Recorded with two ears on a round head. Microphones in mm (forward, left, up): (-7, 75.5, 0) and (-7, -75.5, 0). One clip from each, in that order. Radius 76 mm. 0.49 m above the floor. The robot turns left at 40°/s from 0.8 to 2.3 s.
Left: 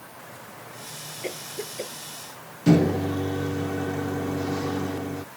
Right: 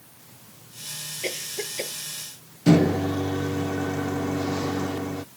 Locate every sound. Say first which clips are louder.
1.2 s a cough: right 3 dB; 80° right; by 2.0 s 50° right (ahead or behind)
2.7 s a microwave: right 1 dB; 15° right (ahead or behind)